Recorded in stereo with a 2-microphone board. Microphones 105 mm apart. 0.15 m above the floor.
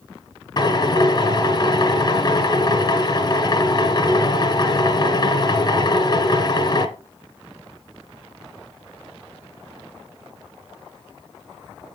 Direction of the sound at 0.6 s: 35° left (ahead or behind).